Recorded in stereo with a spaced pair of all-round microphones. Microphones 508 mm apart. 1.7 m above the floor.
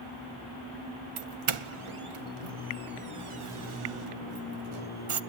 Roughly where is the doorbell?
Right.